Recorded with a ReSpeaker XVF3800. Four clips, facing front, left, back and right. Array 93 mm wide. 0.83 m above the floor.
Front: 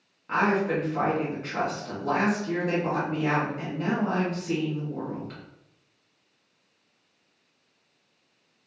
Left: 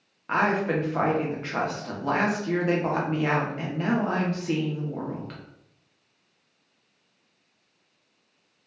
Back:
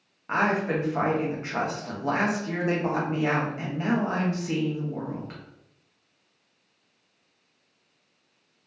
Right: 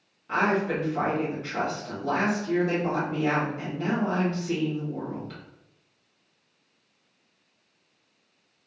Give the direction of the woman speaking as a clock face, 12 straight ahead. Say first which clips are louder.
Left 1 dB, front 1 dB; 8 o'clock.